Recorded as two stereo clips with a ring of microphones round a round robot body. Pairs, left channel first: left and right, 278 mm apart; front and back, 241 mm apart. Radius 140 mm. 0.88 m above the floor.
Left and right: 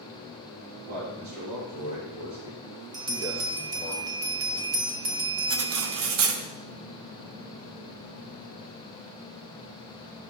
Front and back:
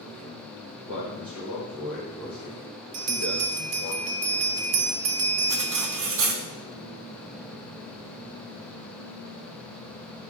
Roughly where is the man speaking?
Right.